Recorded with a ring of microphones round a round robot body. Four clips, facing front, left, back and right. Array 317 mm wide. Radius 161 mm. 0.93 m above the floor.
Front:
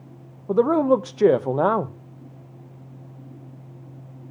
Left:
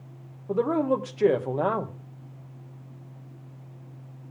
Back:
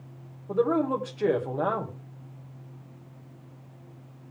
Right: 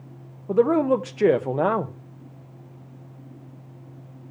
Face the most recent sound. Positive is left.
turn(degrees=-25)